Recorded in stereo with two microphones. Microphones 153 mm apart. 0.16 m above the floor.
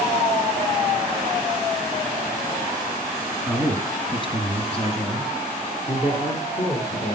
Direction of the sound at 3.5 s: 15° left (ahead or behind).